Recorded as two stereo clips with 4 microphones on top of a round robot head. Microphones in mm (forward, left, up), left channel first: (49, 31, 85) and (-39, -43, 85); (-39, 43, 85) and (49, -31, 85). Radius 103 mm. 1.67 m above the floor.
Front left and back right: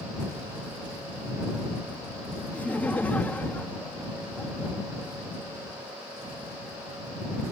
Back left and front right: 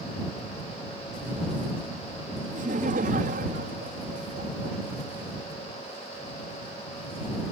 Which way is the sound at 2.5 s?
40° right.